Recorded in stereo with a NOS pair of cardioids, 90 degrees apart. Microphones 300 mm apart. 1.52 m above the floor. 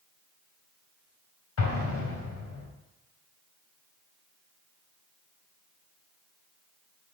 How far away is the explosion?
About 3.5 m.